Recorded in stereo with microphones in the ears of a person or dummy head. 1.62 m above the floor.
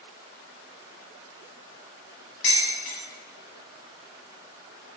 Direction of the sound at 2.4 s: 40° left (ahead or behind).